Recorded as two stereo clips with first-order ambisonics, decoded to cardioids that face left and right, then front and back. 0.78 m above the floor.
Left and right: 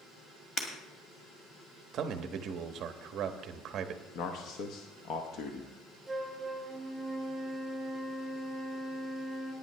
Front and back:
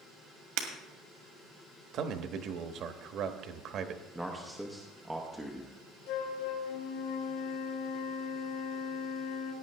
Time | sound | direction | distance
0.6 | breaking glass | 160° left | 1.9 m
1.9 | a man speaking | 140° right | 0.8 m
4.2 | a man speaking | 100° left | 0.8 m
6.1 | a flute | 5° right | 2.5 m